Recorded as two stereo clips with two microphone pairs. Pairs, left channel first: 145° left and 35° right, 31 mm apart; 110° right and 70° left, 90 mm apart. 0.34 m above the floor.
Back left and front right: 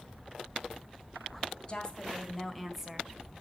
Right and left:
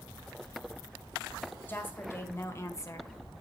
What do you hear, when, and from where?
1.7 s a woman speaking: 165° right, 1.8 m; by 3.4 s 70° right, 1.5 m